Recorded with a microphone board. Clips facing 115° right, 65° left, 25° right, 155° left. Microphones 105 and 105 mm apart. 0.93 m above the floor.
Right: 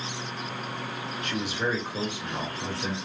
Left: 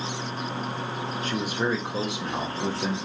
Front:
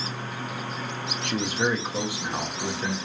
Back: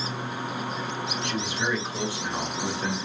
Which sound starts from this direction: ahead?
A man speaking, at 1.2 s.